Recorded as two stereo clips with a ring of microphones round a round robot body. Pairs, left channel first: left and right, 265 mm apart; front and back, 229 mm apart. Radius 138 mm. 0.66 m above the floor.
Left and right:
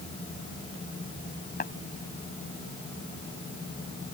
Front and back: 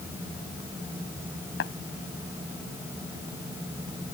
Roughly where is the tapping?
Ahead left.